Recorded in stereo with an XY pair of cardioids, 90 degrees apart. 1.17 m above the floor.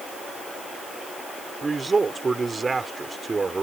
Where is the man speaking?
30° right.